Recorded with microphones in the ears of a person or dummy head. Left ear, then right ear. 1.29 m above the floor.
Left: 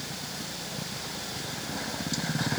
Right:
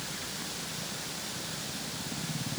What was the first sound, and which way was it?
Only background noise.